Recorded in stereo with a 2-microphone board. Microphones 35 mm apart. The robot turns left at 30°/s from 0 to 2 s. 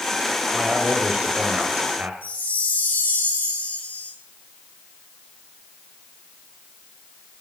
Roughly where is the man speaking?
Ahead.